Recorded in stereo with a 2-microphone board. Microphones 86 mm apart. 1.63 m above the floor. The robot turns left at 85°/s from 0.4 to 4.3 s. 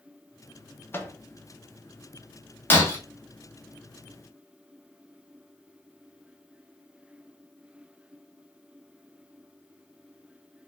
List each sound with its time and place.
0.9 s a microwave: 25° left (ahead or behind), 0.5 m; by 1.2 s 30° left (ahead or behind), 0.5 m
2.7 s breaking glass: 25° left (ahead or behind), 0.9 m; by 3.0 s 30° left (ahead or behind), 0.9 m